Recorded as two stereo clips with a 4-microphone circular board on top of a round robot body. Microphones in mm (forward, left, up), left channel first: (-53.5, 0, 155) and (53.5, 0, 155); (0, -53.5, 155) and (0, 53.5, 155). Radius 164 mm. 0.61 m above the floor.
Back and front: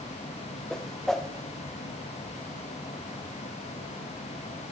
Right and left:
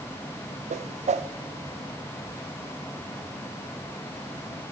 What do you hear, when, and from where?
0.7 s a whoosh: 95° left, 0.5 m